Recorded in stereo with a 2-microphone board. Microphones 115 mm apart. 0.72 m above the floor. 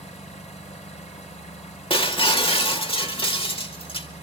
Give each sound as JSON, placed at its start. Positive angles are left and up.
{"t": 0.0, "sound": "an engine running", "side_deg": 85, "distance_m": 2.0}
{"t": 1.9, "sound": "breaking glass", "side_deg": 50, "distance_m": 1.1}